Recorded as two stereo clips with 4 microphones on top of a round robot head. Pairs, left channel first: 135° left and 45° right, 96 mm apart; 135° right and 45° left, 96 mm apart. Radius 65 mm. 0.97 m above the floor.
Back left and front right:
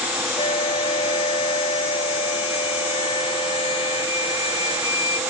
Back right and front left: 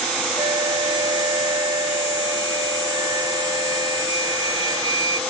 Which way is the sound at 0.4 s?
100° left.